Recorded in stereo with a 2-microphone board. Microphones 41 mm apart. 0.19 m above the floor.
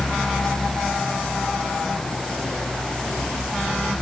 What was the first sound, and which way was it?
Only background noise.